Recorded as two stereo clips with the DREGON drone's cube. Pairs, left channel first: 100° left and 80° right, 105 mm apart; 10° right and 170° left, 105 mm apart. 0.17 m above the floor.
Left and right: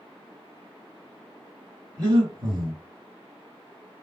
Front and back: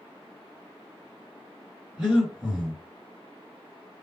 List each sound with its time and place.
2.0 s breathing: 120° right, 2.5 m